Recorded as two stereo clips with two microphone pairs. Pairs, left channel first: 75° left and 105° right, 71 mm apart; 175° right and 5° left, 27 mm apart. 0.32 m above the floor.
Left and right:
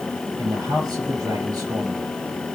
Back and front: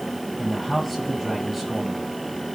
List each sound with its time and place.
0.4 s a man speaking: 95° right, 6.5 m